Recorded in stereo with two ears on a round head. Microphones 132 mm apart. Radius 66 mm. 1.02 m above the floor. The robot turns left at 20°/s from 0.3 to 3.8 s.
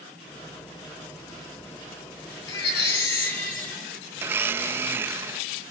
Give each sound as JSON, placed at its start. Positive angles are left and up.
{"t": 2.5, "sound": "a baby crying", "side_deg": 80, "distance_m": 4.5}
{"t": 4.2, "sound": "a blender", "side_deg": -15, "distance_m": 0.5}